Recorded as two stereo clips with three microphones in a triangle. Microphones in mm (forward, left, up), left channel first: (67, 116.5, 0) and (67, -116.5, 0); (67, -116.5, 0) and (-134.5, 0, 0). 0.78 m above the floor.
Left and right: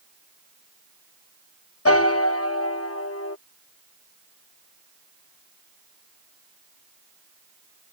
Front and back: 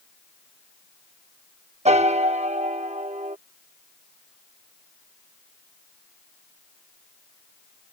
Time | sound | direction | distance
1.9 | a piano | 90° left | ?